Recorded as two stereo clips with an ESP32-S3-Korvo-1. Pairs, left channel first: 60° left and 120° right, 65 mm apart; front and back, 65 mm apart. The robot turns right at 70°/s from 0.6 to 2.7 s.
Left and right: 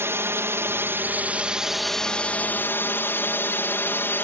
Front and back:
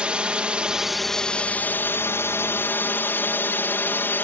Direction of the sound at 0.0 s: 115° right.